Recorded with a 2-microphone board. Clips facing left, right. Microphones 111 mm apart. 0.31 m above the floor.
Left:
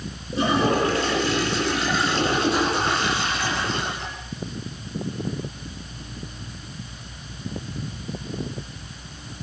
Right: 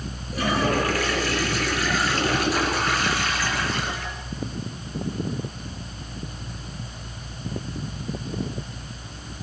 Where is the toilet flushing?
25° left (ahead or behind), 5.5 m.